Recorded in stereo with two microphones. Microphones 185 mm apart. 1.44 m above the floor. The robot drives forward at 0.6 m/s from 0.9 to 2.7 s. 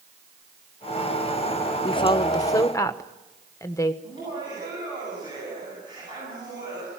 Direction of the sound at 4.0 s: 25° right (ahead or behind).